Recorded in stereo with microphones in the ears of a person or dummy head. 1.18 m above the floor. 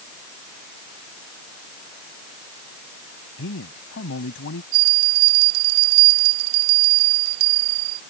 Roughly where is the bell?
Right.